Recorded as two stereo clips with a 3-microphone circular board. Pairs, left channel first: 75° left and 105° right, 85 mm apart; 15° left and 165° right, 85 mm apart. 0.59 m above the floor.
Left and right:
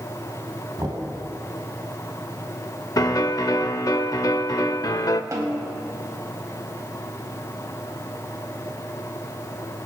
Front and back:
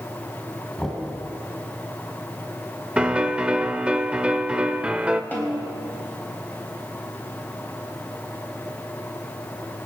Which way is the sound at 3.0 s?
115° left.